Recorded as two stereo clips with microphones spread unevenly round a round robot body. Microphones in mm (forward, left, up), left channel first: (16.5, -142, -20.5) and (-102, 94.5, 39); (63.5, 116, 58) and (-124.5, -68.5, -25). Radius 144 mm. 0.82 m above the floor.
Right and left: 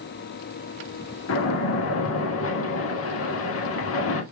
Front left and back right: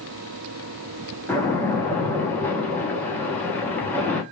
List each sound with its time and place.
1.3 s a splash: 50° right, 1.5 m